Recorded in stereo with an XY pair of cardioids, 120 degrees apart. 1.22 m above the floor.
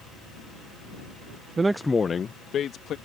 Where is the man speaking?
35° right; by 3.0 s 55° left.